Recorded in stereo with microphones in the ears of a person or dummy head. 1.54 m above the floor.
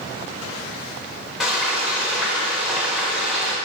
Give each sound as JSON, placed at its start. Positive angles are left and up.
{"t": 1.4, "sound": "frying", "side_deg": 0, "distance_m": 1.2}